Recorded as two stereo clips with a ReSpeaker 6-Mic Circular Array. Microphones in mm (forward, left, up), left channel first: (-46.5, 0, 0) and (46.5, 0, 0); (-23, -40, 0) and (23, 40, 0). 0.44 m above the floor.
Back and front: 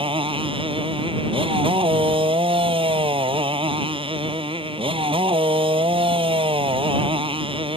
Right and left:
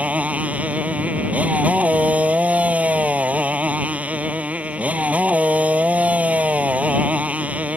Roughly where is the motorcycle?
Ahead.